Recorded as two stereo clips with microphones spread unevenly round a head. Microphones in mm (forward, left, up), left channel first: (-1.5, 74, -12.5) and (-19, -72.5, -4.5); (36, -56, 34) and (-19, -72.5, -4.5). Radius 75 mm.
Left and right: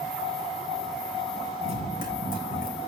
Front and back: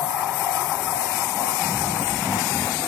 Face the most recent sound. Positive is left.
turn(degrees=110)